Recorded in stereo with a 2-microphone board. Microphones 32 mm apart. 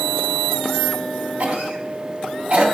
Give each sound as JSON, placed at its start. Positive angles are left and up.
{"t": 1.4, "sound": "a cough", "side_deg": -55, "distance_m": 2.5}